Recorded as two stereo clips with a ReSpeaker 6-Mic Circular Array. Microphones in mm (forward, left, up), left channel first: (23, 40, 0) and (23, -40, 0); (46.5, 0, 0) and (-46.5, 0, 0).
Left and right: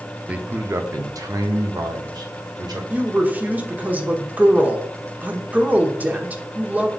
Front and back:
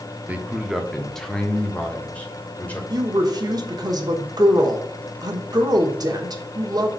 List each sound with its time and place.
0.3 s a man speaking: 135° right, 0.6 m; by 2.8 s 70° right, 1.6 m
2.9 s a woman speaking: 155° right, 1.1 m